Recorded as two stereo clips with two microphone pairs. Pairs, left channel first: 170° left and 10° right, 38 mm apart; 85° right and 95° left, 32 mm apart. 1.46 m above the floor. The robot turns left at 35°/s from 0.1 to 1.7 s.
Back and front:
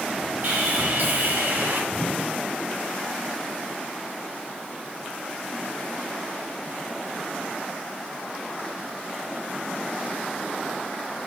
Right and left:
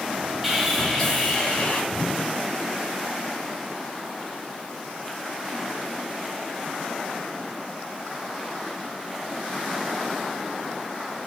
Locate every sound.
0.4 s sawing: 10° left, 2.5 m; by 1.8 s 30° right, 2.5 m
1.9 s a whoosh: 140° right, 0.9 m